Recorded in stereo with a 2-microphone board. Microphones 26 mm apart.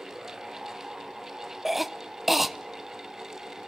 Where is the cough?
5° right (ahead or behind), 0.9 m.